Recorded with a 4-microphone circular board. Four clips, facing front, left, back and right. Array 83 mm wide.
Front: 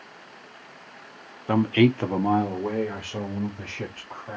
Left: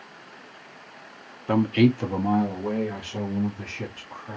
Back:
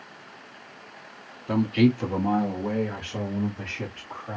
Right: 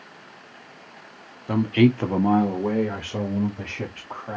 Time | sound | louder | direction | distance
1.5 | a man speaking | right 1 dB, front 2 dB | 30° left | 0.8 m